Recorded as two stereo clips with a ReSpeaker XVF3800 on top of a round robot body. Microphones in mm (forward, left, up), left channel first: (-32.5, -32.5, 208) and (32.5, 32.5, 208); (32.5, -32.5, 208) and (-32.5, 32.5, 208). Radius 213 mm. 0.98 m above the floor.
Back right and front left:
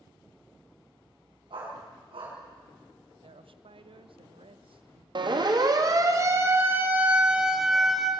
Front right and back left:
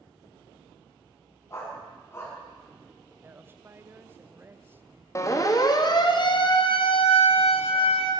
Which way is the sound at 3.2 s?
65° left.